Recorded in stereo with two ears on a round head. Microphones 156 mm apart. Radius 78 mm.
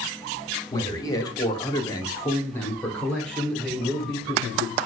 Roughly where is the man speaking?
Left.